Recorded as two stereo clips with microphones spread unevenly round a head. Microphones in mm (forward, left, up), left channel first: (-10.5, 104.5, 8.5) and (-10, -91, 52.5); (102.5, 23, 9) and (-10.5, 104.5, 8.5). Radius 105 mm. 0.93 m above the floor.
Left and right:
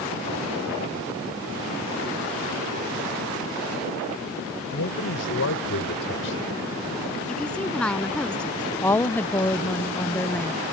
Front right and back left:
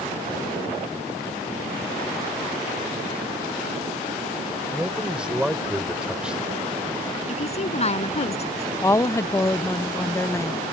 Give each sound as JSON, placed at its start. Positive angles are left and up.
{"t": 4.7, "sound": "a man speaking", "azimuth_deg": 60}
{"t": 7.3, "sound": "a woman speaking", "azimuth_deg": 5}
{"t": 8.8, "sound": "a woman speaking", "azimuth_deg": 25}